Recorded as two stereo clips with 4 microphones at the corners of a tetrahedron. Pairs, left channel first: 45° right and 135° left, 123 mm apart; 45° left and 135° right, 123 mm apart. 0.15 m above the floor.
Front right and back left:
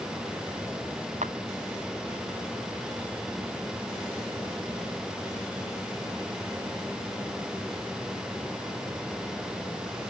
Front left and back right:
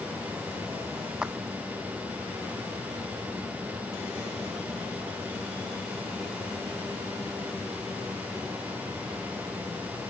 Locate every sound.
1.2 s a clap: 140° left